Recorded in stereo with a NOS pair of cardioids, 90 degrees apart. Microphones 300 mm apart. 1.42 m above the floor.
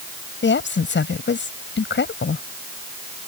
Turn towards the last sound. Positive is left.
turn(degrees=40)